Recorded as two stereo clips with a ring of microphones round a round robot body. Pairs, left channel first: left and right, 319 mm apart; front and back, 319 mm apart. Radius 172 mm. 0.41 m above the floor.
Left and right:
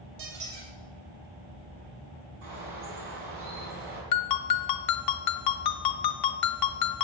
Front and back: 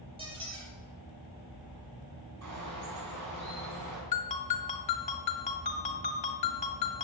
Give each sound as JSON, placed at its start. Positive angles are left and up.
{"t": 0.2, "sound": "a squeak", "azimuth_deg": -105, "distance_m": 4.5}
{"t": 2.4, "sound": "a bird", "azimuth_deg": -145, "distance_m": 3.5}
{"t": 4.1, "sound": "a ringtone", "azimuth_deg": 70, "distance_m": 0.9}